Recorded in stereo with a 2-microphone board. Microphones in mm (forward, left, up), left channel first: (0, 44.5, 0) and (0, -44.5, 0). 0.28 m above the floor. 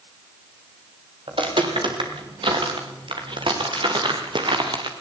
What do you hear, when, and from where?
1.3 s footsteps: 70° right (ahead or behind), 6 m; by 4.9 s 60° right (ahead or behind), 4 m